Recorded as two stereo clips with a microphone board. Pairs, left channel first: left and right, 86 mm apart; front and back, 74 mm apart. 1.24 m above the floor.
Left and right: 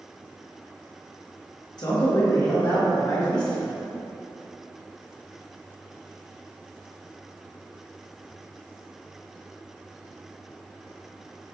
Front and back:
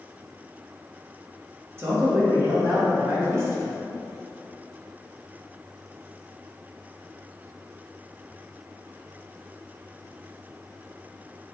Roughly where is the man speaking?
Behind left.